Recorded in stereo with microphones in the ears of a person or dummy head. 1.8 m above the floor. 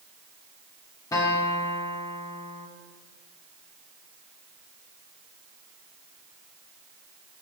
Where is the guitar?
20° left (ahead or behind), 1.3 m.